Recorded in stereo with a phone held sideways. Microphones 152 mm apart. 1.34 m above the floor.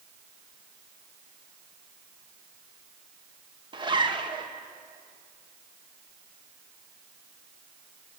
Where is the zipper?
30° right (ahead or behind), 1.7 m.